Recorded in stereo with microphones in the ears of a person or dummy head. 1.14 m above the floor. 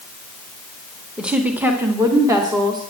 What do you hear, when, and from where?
1.2 s a woman speaking: centre (ahead or behind), 1.6 m; by 2.8 s 20° right (ahead or behind), 2.5 m